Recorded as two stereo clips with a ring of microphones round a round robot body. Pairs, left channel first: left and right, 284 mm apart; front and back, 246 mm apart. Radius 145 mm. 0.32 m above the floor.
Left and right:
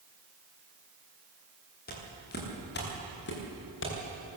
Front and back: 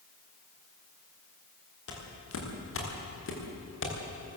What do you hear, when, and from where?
1.9 s footsteps: 30° left, 6.5 m; by 4.0 s 40° left, 6 m